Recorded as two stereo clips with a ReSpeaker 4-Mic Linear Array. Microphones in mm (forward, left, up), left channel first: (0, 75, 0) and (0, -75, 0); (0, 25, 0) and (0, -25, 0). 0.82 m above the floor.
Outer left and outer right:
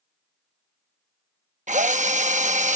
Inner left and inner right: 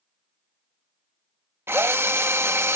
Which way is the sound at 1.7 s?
55° right (ahead or behind).